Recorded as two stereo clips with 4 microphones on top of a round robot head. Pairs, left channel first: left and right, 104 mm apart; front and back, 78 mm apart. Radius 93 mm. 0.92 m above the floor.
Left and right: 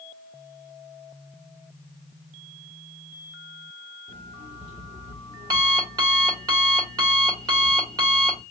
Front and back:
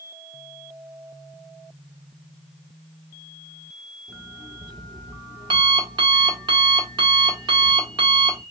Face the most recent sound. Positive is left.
turn(degrees=-145)